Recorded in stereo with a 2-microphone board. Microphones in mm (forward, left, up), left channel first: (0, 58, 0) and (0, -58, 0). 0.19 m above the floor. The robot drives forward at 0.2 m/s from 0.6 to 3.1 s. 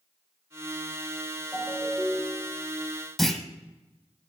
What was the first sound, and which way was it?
A ringtone, centre (ahead or behind).